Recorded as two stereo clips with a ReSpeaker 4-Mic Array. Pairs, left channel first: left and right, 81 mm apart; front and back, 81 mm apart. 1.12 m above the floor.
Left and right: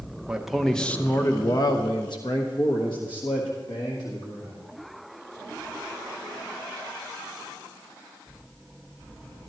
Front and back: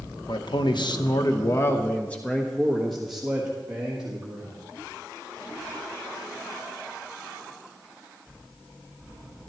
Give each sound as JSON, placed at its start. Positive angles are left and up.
{"t": 0.3, "sound": "a man speaking", "azimuth_deg": -10, "distance_m": 0.9}